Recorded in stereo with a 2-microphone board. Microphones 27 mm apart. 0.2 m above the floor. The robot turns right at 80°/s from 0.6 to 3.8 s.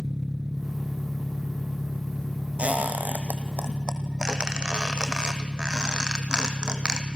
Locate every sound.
0.0 s an engine running: 10° right, 0.9 m; by 7.2 s 115° right, 0.9 m
2.6 s a squeak: 55° right (ahead or behind), 2.5 m; by 7.0 s 25° right (ahead or behind), 2.5 m